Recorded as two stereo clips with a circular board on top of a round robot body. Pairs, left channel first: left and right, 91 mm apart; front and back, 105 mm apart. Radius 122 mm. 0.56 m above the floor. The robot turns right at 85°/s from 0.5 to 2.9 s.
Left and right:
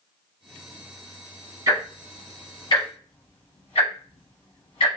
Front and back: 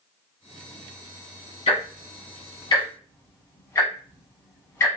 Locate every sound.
1.7 s ticking: 40° right, 1.3 m; by 4.9 s 65° left, 1.3 m